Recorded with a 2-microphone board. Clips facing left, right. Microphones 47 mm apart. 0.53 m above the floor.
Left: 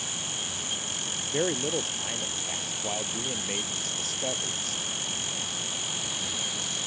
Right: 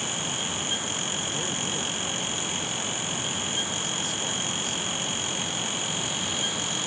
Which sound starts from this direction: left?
A man speaking, at 1.3 s.